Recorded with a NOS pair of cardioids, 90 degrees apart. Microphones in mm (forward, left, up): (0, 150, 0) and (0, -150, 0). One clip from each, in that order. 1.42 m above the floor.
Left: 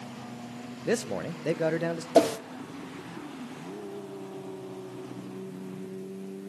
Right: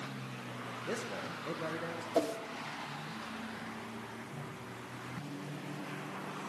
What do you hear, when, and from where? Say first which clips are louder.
0.8 s a man speaking: left 11 dB; 60° left, 0.8 m
2.1 s a whoosh: left 11 dB; 45° left, 0.5 m